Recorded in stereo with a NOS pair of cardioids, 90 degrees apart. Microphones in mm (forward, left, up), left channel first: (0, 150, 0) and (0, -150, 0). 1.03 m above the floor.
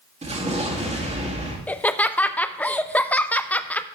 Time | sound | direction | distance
0.2 | an explosion | 25° right | 2.0 m
1.7 | laughter | 5° left | 0.5 m